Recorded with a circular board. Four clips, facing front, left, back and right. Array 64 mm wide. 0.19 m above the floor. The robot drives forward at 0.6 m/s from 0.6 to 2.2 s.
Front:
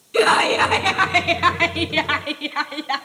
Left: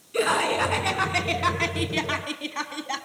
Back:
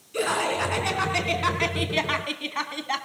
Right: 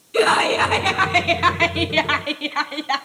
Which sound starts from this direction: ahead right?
Laughter, at 0.1 s.